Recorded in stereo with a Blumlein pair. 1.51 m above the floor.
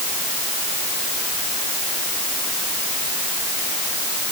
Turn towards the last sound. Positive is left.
No sound to turn to.